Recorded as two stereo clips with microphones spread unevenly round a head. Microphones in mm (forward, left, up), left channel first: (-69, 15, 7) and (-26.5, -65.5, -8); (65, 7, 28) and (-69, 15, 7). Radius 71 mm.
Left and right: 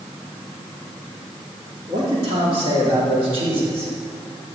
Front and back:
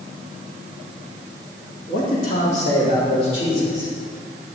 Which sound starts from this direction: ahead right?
A man speaking, at 1.9 s.